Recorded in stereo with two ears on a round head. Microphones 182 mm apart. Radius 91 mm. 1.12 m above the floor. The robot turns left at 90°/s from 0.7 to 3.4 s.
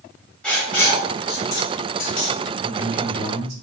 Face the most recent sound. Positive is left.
turn(degrees=-85)